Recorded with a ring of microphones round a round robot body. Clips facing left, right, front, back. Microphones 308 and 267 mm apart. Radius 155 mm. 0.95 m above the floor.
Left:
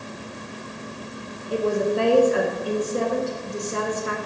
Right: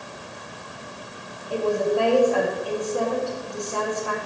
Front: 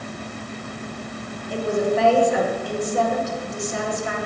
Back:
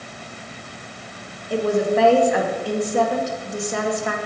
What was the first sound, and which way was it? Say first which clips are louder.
A woman speaking: even, back 2 dB; 155° left.